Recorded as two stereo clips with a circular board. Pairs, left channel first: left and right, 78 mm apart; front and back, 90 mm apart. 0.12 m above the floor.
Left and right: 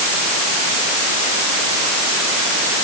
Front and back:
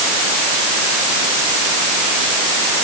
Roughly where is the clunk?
I don't hear a clunk.